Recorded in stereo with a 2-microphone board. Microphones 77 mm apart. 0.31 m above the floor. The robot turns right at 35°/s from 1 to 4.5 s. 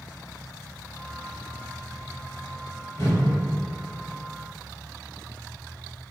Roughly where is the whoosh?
Left.